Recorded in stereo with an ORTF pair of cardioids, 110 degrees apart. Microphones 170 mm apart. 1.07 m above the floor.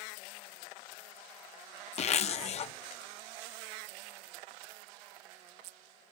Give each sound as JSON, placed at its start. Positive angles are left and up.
{"t": 2.0, "sound": "a zipper", "azimuth_deg": 40, "distance_m": 0.6}